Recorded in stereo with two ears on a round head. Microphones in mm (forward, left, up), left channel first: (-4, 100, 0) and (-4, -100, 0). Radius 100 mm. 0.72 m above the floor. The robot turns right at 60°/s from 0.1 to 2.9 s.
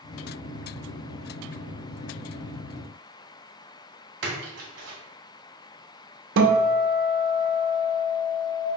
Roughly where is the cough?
I don't hear a cough.